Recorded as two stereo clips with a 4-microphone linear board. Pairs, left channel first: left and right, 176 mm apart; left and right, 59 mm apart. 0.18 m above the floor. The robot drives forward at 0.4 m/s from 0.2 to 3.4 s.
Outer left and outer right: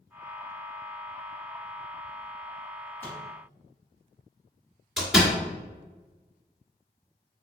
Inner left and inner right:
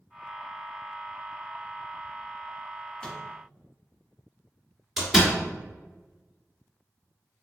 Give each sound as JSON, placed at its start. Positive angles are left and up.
{"t": 3.0, "sound": "a microwave", "side_deg": 15, "distance_m": 1.6}
{"t": 5.0, "sound": "a door slam", "side_deg": 0, "distance_m": 1.5}